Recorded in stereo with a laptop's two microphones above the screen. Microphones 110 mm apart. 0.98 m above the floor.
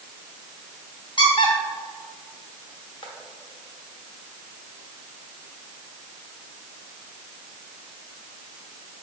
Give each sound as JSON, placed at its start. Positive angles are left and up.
{"t": 1.2, "sound": "a squeak", "side_deg": 50, "distance_m": 0.8}